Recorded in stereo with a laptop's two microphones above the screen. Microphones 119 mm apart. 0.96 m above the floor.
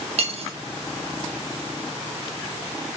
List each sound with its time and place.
0.2 s cutlery clinking: 60° right (ahead or behind), 0.6 m